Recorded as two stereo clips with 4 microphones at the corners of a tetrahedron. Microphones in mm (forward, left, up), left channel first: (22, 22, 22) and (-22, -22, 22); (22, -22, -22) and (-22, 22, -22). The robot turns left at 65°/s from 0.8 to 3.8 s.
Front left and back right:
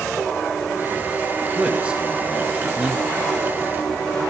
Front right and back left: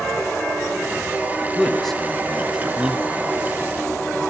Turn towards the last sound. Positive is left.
turn(degrees=110)